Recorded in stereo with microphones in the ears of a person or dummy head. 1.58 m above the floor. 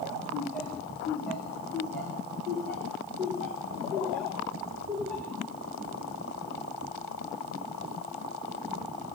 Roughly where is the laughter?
Centre.